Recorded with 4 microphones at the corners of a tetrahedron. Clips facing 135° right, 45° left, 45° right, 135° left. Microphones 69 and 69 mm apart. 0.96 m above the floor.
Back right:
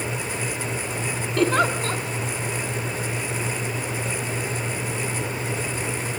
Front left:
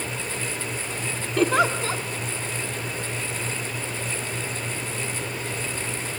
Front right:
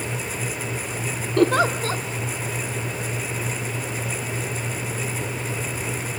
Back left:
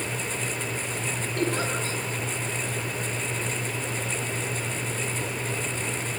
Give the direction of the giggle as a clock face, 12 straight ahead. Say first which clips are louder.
Even, front right 10 dB; 1 o'clock.